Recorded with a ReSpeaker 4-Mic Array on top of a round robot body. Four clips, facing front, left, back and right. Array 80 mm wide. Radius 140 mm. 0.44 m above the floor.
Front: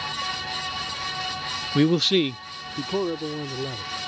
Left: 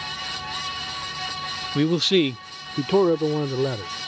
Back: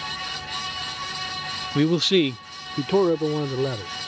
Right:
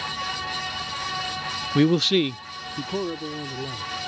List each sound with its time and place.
1.8 s a man speaking: 65° right; by 3.9 s 125° left